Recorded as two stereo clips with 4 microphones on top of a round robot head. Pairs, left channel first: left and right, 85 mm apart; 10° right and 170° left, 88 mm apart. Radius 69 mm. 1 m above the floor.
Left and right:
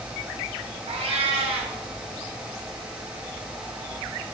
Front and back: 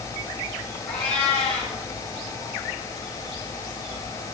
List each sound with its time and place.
0.9 s a cat meowing: 90° right, 2.5 m